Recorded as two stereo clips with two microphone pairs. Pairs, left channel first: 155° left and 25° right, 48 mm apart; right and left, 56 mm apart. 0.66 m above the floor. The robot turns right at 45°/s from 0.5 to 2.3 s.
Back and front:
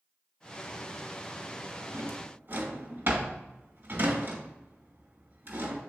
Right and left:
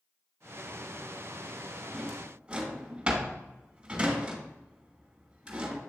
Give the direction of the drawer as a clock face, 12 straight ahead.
12 o'clock.